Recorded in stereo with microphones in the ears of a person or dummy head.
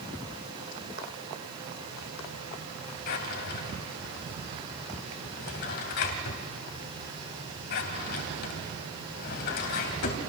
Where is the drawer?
50° left (ahead or behind), 2.5 m.